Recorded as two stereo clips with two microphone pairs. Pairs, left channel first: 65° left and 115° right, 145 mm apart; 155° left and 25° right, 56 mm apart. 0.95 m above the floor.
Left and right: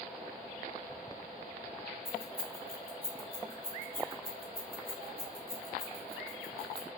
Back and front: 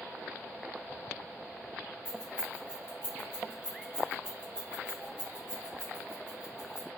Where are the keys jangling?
50° left, 1.0 m.